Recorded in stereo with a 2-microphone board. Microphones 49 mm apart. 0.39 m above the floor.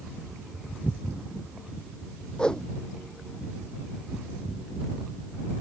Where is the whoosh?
20° left (ahead or behind).